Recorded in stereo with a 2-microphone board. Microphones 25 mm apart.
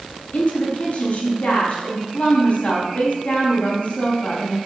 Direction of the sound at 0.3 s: 60° left (ahead or behind).